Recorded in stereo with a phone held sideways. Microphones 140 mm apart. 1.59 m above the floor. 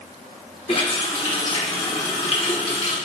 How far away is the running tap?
About 1.2 m.